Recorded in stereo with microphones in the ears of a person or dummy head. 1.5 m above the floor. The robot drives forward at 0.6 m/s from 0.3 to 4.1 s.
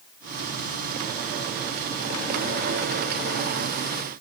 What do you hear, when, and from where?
Only background noise.